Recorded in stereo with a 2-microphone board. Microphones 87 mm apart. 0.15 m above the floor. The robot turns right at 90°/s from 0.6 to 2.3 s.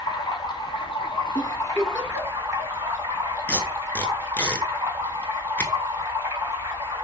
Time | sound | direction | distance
0.0 | running water | 60° left | 1.0 m
1.4 | a giggle | 40° left (ahead or behind) | 0.8 m
3.5 | tape being pulled | 20° left (ahead or behind) | 0.6 m